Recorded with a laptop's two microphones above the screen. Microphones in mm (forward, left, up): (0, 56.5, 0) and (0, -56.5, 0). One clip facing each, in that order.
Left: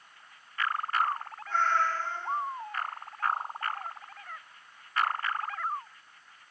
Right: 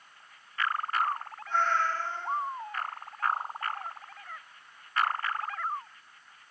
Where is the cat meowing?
20° right (ahead or behind), 1.8 m.